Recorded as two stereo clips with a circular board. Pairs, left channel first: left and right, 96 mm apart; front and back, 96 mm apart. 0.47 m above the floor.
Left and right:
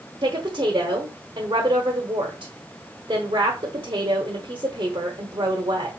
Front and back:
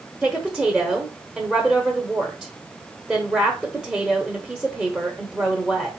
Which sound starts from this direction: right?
A woman speaking, at 0.2 s.